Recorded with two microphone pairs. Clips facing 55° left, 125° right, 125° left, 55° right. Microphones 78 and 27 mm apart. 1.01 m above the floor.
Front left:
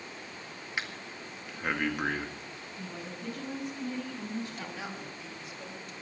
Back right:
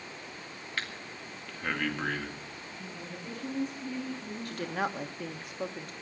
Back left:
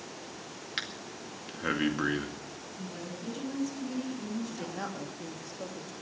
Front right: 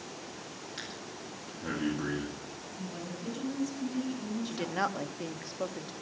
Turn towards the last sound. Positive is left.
turn(degrees=-90)